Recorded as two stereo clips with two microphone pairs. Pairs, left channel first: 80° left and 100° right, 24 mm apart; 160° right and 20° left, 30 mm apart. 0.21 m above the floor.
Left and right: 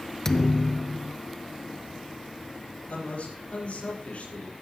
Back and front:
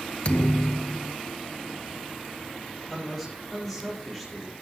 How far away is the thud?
About 0.6 m.